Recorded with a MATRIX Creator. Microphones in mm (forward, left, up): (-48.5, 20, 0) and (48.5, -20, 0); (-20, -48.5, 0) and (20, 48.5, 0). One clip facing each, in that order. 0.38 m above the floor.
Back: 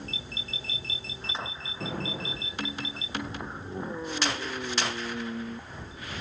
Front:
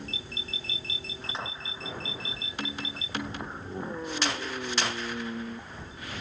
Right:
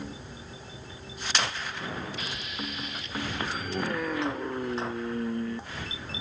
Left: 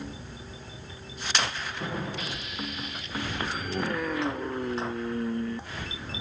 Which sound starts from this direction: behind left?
An explosion, at 1.8 s.